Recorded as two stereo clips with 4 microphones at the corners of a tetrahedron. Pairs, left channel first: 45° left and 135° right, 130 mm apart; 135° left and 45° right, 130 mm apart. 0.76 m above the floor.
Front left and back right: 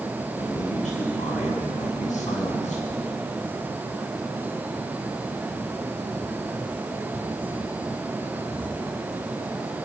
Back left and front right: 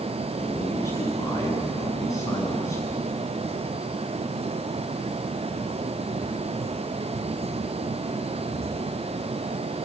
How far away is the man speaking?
About 8.5 m.